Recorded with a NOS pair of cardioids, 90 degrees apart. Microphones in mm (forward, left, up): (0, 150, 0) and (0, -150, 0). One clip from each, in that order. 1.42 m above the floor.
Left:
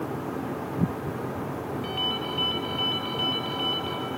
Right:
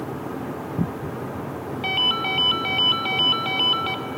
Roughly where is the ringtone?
Ahead right.